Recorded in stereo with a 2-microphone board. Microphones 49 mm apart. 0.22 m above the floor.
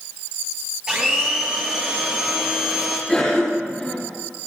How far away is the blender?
About 4.5 m.